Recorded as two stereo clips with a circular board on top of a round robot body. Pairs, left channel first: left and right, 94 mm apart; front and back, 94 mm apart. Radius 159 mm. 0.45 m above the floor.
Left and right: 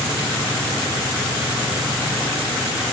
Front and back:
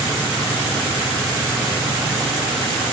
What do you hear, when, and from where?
Only background noise.